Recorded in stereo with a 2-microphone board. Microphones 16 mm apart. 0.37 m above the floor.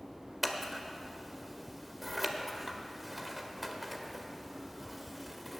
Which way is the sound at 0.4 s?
5° right (ahead or behind).